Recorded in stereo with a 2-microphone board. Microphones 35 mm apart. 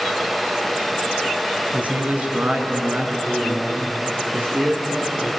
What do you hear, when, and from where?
1.7 s a man speaking: 45° right (ahead or behind), 2 m